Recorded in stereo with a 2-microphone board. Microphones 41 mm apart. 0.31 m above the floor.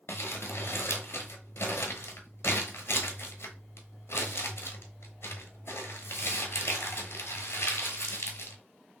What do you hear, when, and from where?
0.1 s crumpling: 85° left, 0.9 m